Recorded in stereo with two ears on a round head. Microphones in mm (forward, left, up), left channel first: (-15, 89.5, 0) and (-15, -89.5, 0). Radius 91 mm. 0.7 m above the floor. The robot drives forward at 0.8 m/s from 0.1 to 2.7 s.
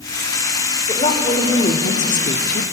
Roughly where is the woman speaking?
Left.